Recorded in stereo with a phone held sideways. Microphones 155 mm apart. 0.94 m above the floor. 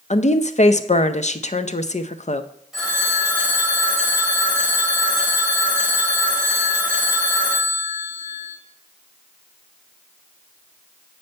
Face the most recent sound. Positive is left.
turn(degrees=-5)  # may be behind; listen again after turning